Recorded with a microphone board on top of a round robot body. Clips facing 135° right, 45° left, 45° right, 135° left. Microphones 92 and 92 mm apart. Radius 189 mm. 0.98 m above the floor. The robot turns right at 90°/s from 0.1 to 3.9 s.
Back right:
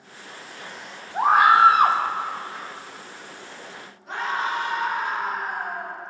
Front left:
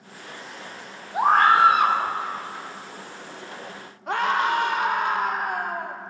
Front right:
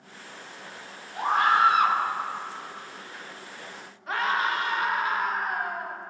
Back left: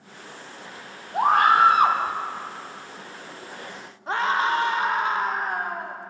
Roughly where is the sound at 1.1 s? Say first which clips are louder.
Back right 1 dB, back left 5 dB; behind left.